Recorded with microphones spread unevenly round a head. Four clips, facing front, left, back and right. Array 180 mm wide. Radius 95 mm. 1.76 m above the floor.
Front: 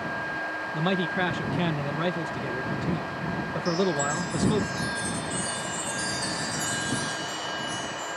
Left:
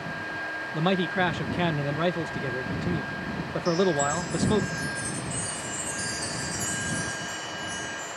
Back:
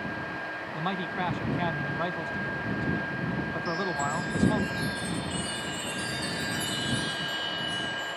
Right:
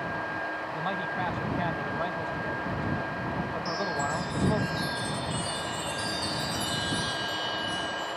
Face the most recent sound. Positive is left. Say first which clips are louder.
# left 10 dB, front 6 dB
turn(degrees=-35)